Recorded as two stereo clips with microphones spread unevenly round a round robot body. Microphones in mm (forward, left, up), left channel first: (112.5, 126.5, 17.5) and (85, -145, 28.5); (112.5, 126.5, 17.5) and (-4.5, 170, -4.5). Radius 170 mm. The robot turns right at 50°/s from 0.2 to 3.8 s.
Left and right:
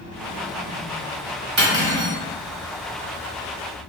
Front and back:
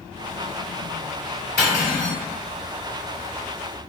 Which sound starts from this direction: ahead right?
Cutlery clinking, at 1.6 s.